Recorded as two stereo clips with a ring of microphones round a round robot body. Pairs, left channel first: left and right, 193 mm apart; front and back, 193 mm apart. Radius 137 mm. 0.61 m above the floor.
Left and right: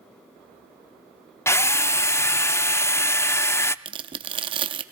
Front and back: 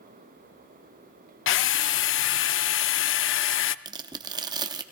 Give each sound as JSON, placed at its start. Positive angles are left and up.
{"t": 1.5, "sound": "a drill", "azimuth_deg": 10, "distance_m": 0.5}
{"t": 3.9, "sound": "tearing paper", "azimuth_deg": -130, "distance_m": 0.5}